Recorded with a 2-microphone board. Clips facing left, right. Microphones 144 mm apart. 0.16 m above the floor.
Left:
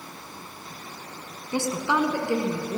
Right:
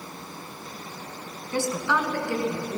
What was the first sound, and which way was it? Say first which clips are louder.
A woman speaking: left 1 dB; 15° left (ahead or behind).